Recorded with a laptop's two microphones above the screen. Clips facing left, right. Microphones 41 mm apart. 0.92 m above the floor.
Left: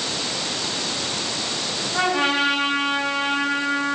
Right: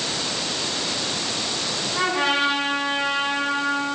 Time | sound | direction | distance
1.9 | a trumpet | 65° left (ahead or behind) | 5.5 m